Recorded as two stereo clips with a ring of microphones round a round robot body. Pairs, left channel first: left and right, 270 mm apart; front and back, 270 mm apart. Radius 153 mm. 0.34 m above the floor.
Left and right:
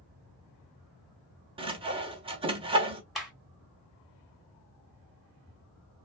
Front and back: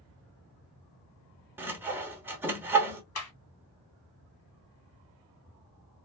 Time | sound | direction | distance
1.6 | sawing | 110° right | 0.8 m
3.1 | a clap | straight ahead | 1.9 m